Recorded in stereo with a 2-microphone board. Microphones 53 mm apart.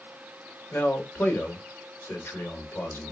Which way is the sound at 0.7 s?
45° left (ahead or behind).